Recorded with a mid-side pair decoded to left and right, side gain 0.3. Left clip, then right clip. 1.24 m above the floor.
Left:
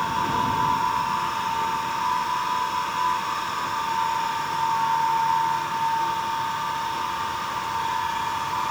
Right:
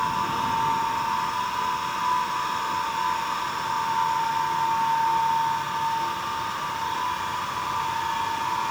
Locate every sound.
Only background noise.